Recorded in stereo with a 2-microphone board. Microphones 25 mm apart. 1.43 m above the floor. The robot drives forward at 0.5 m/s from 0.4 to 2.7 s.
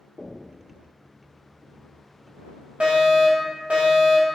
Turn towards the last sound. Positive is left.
turn(degrees=-50)  # may be behind; listen again after turning